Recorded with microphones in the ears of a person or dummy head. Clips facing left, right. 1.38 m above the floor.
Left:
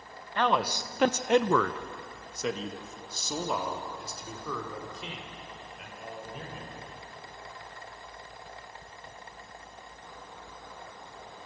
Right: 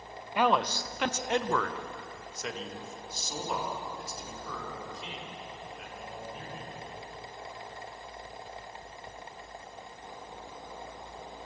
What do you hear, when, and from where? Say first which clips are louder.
0.3 s a man speaking: right 1 dB; 10° right (ahead or behind), 0.9 m; by 6.7 s 65° left (ahead or behind), 6 m